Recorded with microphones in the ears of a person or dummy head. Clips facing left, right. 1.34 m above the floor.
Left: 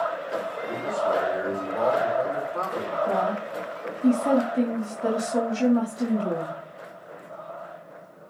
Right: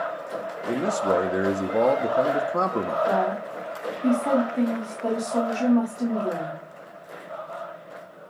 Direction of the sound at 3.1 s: 15° left (ahead or behind).